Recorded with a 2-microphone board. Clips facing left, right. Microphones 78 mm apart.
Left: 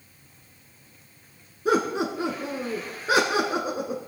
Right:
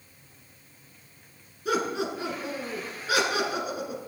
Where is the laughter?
35° left (ahead or behind), 1.5 m.